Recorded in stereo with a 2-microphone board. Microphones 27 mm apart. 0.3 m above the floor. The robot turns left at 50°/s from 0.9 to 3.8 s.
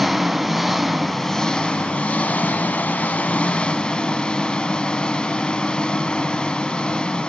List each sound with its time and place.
0.0 s an engine running: straight behind, 0.8 m; by 7.3 s 35° left, 0.8 m